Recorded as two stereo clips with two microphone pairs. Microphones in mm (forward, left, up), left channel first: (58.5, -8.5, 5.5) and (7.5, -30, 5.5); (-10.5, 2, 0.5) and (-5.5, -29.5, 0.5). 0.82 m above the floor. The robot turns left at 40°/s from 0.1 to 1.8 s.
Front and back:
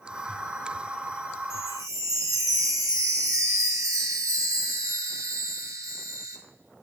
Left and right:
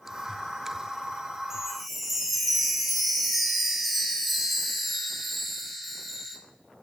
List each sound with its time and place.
1.5 s a chime: 155° right, 0.8 m; by 6.4 s 170° right, 0.8 m